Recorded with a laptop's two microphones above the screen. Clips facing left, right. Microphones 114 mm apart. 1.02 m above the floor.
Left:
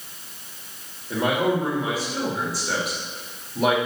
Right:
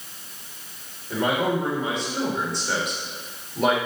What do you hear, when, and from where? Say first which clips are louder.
1.1 s a man speaking: left 1 dB; 5° left (ahead or behind), 2 m